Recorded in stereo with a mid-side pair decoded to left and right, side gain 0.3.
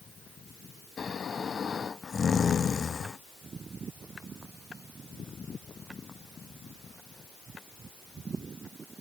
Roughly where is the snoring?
Ahead left.